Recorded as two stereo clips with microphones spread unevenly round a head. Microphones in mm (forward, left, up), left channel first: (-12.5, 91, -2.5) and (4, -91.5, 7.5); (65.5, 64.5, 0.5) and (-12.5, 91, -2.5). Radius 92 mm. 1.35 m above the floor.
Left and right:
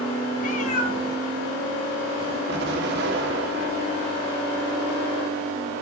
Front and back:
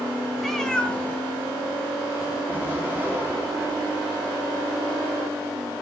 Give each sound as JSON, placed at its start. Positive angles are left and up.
{"t": 0.4, "sound": "a cat meowing", "azimuth_deg": 70, "distance_m": 1.7}
{"t": 2.5, "sound": "an explosion", "azimuth_deg": -115, "distance_m": 1.9}